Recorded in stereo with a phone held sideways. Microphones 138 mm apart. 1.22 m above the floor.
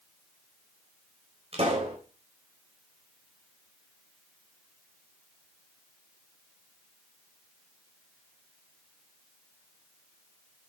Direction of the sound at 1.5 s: 50° right (ahead or behind).